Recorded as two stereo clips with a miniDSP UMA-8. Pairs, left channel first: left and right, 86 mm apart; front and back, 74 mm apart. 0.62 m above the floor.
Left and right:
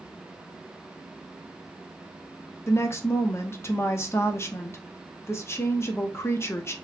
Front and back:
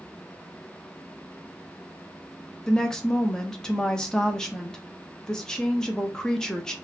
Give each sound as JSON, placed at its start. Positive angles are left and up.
{"t": 2.7, "sound": "a woman speaking", "azimuth_deg": 70, "distance_m": 0.6}